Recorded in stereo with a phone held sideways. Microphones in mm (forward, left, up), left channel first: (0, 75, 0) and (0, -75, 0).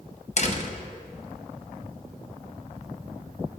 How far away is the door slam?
About 0.7 m.